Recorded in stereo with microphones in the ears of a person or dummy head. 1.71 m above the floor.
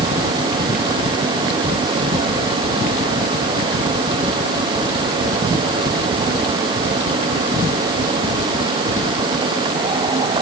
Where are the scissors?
I don't hear scissors.